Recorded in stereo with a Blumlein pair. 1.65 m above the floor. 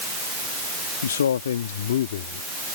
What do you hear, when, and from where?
1.0 s a man speaking: 70° left; by 2.5 s 55° left